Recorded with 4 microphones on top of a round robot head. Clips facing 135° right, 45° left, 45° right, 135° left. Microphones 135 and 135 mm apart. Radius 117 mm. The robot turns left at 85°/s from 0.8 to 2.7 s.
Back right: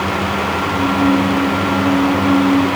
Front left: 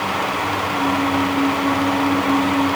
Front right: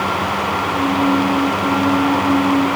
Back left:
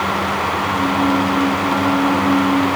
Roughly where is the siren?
I don't hear a siren.